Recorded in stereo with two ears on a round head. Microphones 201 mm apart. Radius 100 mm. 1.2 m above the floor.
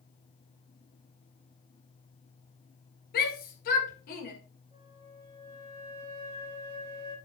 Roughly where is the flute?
Centre.